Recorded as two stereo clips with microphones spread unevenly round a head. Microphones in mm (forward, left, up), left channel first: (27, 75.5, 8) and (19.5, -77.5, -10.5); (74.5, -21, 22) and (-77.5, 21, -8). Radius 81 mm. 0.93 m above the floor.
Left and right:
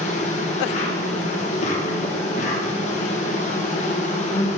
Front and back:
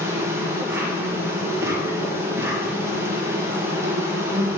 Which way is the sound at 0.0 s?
115° left.